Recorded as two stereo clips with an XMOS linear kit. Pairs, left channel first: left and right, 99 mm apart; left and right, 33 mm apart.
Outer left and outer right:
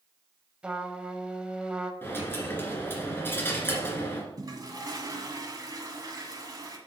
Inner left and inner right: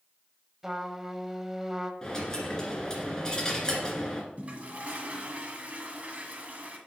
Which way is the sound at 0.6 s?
10° right (ahead or behind).